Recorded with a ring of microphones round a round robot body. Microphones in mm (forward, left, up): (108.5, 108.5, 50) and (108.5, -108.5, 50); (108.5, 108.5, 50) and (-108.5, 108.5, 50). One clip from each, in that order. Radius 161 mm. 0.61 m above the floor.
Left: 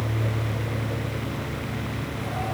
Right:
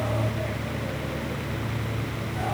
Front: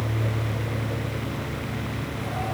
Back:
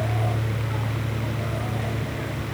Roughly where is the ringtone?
I don't hear a ringtone.